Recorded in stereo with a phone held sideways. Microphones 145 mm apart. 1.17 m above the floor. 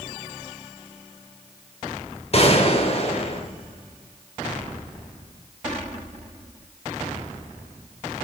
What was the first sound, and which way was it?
A gunshot, 45° left (ahead or behind).